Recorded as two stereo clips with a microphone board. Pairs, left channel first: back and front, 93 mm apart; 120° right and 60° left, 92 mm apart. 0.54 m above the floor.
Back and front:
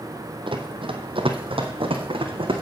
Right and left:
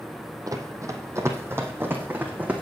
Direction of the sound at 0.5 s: 15° left.